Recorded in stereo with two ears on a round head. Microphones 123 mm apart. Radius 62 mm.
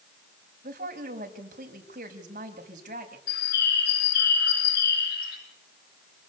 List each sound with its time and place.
0.6 s a woman speaking: 60° right (ahead or behind), 5 m
3.3 s a bird: 85° left, 6 m